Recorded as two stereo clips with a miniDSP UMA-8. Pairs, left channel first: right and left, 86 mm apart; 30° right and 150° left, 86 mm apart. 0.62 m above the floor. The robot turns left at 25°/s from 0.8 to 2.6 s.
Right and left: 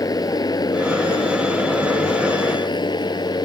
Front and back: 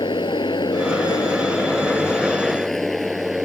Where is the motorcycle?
45° right; by 3.4 s 120° right.